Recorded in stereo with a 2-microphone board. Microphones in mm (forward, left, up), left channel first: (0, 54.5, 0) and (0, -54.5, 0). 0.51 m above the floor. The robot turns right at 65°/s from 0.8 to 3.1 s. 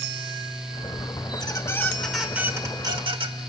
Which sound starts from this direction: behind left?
A squeak, at 1.3 s.